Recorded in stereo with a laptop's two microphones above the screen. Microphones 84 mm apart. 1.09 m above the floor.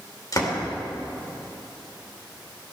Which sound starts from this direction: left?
A door slam, at 0.3 s.